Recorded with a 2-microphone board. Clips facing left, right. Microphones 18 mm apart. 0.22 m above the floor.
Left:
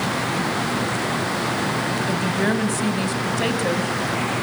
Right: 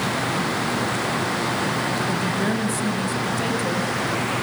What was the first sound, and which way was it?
A woman speaking, 20° left (ahead or behind).